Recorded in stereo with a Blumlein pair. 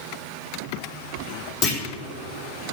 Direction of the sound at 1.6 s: 40° left.